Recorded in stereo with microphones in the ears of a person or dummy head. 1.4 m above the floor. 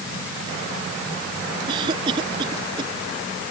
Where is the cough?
35° right (ahead or behind).